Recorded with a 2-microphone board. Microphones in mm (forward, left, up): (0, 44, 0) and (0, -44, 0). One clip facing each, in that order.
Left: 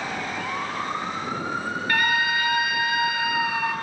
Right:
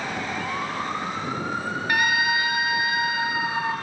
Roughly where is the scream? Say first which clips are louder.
Right 1 dB; centre.